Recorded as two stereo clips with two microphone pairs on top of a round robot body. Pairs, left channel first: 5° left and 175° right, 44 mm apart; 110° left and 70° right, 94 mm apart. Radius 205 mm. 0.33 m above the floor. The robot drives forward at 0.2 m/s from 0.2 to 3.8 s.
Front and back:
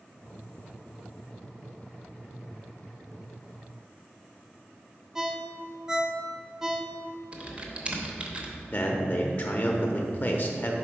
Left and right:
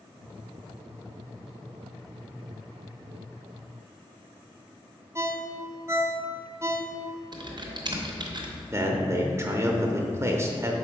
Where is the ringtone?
115° right, 0.9 m.